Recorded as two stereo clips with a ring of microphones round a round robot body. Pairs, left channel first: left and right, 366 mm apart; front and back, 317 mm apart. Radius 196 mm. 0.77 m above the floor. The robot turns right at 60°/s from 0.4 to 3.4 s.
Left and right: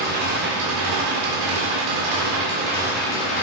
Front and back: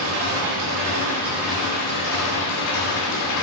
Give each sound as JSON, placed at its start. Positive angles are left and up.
{"t": 0.0, "sound": "an engine running", "azimuth_deg": -155, "distance_m": 2.5}